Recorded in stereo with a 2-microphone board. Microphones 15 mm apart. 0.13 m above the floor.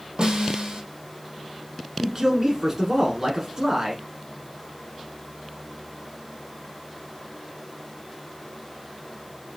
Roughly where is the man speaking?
Right.